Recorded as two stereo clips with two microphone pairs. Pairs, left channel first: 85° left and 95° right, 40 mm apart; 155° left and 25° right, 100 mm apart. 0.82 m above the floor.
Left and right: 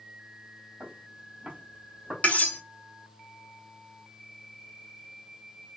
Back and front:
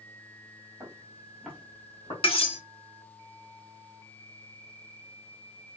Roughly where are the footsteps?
Ahead right.